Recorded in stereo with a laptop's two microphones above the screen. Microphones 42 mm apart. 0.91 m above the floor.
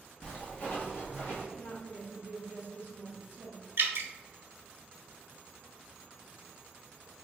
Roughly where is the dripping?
Right.